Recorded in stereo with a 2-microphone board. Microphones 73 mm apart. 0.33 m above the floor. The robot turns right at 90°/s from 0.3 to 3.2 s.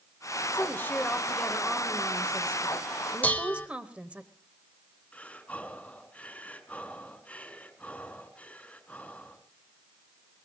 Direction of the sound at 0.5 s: 90° left.